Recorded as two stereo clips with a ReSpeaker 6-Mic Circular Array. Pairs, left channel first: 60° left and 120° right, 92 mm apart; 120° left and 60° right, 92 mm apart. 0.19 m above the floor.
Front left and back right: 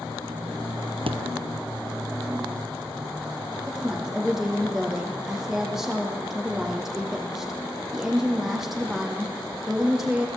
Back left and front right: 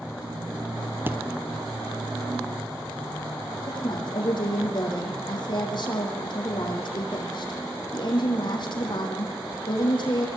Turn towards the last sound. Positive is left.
turn(degrees=155)